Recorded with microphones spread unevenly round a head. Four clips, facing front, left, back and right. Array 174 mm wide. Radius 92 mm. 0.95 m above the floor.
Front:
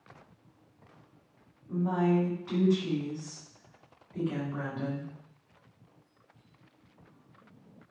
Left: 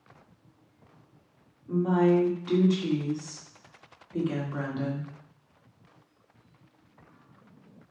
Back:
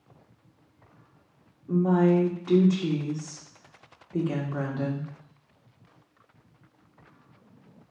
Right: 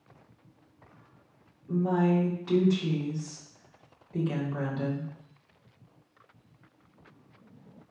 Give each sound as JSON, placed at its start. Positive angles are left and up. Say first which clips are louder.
{"t": 1.7, "sound": "a woman speaking", "louder": "left 3 dB, back 6 dB", "azimuth_deg": 175, "distance_m": 3.0}